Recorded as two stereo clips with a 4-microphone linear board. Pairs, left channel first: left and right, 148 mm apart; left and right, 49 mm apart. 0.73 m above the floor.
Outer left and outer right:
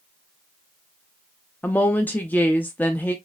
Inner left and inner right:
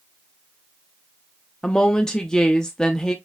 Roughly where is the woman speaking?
Centre.